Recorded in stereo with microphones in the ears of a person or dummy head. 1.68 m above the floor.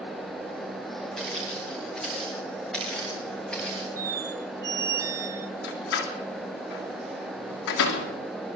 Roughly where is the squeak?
Centre.